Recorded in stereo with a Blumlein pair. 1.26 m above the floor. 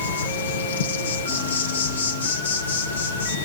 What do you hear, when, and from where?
0.0 s an insect: 65° left, 0.7 m